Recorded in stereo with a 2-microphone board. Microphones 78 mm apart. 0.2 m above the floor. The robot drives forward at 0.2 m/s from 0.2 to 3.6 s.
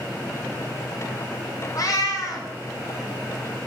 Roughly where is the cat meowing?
Left.